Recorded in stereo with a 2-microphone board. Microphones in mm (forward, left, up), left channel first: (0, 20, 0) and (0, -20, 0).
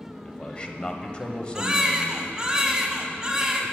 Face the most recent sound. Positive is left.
turn(degrees=-20)  # may be behind; listen again after turning